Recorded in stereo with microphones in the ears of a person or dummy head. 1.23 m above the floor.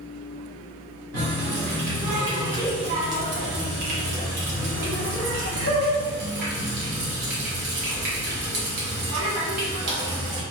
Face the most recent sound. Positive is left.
turn(degrees=-65)  # may be behind; listen again after turning